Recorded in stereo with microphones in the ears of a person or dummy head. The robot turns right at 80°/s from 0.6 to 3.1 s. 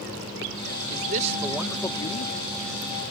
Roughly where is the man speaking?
Ahead right.